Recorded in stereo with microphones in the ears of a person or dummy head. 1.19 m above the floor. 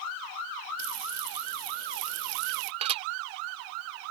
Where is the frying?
75° right (ahead or behind).